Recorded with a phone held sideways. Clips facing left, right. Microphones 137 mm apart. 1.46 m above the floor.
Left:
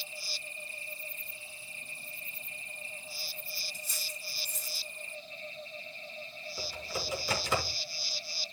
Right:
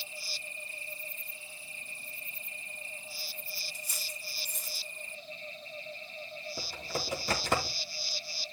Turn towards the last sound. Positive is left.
turn(degrees=-60)  # may be behind; listen again after turning